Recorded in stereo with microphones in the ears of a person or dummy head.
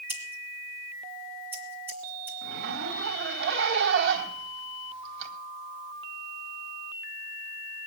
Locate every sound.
0.1 s scissors: 10° right (ahead or behind), 2.5 m
2.4 s a zipper: 60° right (ahead or behind), 1.8 m